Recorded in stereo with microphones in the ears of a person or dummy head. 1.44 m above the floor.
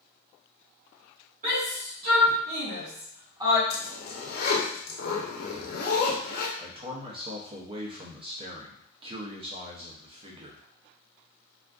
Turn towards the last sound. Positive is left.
turn(degrees=-30)  # may be behind; listen again after turning